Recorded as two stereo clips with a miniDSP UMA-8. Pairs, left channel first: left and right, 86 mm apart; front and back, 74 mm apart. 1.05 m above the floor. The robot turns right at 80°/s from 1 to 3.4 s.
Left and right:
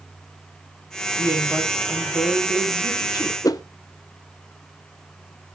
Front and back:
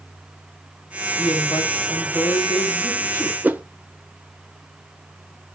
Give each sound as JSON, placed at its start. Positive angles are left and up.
{"t": 1.2, "sound": "a woman speaking", "azimuth_deg": -35, "distance_m": 5.0}
{"t": 3.4, "sound": "a whoosh", "azimuth_deg": 120, "distance_m": 0.6}